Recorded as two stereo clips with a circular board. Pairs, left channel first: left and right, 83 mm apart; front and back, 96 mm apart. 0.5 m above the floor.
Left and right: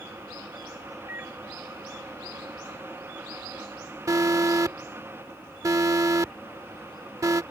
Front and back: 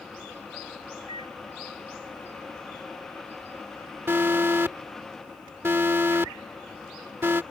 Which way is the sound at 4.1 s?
120° right.